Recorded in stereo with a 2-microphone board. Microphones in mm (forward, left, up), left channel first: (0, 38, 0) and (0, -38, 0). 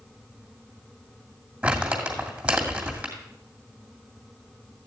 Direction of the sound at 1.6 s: 15° right (ahead or behind).